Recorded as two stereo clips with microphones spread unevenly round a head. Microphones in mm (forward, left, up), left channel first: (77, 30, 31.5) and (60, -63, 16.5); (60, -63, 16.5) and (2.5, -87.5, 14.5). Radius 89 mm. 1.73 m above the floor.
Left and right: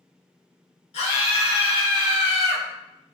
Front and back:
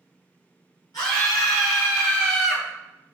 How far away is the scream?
About 3.5 m.